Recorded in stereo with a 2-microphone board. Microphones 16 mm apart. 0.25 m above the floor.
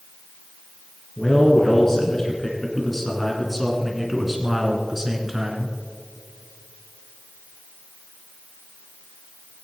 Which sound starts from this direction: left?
A man speaking, at 1.2 s.